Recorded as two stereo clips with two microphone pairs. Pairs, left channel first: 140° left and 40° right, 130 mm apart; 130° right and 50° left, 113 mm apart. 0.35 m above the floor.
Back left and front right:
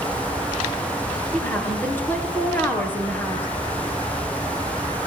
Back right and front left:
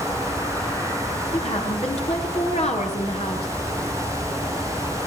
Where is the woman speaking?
145° right, 6 m.